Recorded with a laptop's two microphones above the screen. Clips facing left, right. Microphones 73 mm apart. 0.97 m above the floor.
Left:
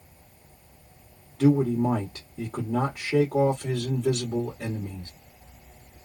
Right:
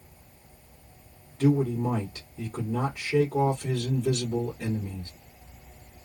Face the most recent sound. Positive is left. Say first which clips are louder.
# left 3 dB
turn(degrees=80)